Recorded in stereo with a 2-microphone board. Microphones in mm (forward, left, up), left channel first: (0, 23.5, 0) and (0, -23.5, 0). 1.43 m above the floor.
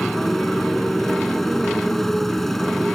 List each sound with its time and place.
0.0 s a motorcycle: 5° left (ahead or behind)